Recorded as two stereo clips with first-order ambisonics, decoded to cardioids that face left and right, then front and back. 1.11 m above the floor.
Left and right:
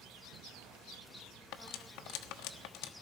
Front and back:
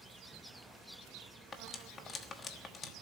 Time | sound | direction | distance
1.5 | cutlery clinking | 65° left | 1.2 m